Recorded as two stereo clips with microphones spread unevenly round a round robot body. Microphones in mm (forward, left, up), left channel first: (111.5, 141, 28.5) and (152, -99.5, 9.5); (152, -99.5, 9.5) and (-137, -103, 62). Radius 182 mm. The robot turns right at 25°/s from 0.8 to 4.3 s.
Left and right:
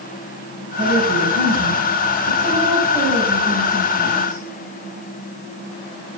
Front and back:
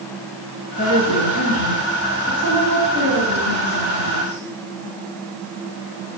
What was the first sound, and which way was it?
A woman speaking, 60° right.